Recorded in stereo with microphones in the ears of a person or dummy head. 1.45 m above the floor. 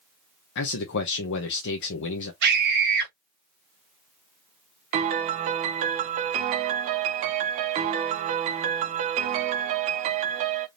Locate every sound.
0.6 s a man speaking: 65° left (ahead or behind), 1.0 m
2.4 s a scream: 55° right (ahead or behind), 1.6 m
4.9 s a piano: 35° right (ahead or behind), 0.6 m